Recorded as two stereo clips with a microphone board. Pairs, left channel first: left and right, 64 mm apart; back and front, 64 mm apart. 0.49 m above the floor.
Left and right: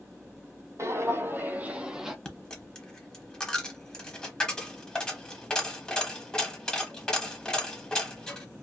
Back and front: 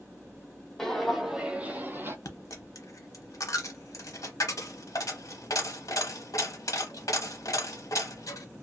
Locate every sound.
0.8 s footsteps: 100° right, 0.7 m; by 2.1 s 5° right, 0.6 m
2.2 s a dropped coin: 165° left, 0.7 m